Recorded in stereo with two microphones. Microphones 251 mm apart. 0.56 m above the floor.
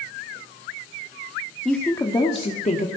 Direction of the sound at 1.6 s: Centre (ahead or behind).